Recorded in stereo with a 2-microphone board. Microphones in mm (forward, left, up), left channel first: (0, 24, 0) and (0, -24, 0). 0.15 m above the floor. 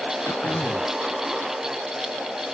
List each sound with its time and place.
0.2 s throat clearing: 70° left (ahead or behind)